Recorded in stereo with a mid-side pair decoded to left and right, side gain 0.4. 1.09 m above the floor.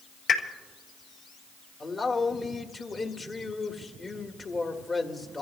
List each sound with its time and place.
0.3 s a pop: 60° left, 5 m
1.8 s a man speaking: 45° left, 1.9 m